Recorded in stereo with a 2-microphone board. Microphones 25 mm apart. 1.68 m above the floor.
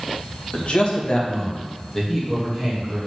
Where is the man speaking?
60° left (ahead or behind), 1.5 m; by 3.0 s 5° right (ahead or behind), 2.5 m.